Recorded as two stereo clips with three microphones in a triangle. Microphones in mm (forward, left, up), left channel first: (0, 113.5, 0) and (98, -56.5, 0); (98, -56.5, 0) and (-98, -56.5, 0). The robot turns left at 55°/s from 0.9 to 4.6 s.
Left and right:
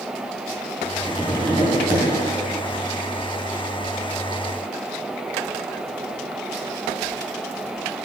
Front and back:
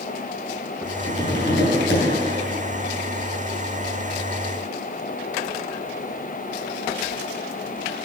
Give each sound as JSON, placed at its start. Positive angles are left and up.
{"t": 1.1, "sound": "tapping", "azimuth_deg": 30, "distance_m": 3.5}